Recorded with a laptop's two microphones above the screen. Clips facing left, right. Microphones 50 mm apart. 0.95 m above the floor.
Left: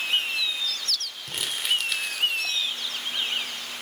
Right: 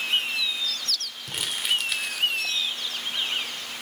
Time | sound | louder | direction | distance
1.3 | crumpling | even | centre (ahead or behind) | 1.7 m